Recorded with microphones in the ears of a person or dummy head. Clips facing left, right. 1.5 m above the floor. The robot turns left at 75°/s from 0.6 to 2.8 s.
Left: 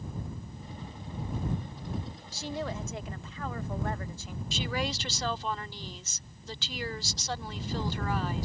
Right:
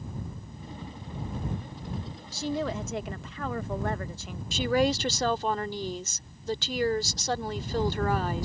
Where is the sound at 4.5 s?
45° right (ahead or behind).